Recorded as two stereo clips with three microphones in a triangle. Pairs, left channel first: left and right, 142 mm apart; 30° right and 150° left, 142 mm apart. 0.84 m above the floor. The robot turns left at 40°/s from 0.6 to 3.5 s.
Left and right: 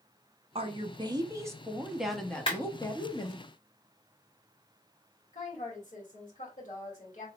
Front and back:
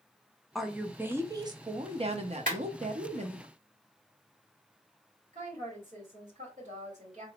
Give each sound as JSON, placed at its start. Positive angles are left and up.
{"t": 0.6, "sound": "a woman speaking", "azimuth_deg": -120, "distance_m": 0.6}
{"t": 2.5, "sound": "a clap", "azimuth_deg": 140, "distance_m": 1.9}
{"t": 5.3, "sound": "a woman speaking", "azimuth_deg": 120, "distance_m": 1.8}